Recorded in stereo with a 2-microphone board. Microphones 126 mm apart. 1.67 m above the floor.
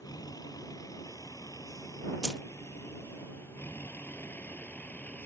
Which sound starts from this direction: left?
A vehicle, at 0.0 s.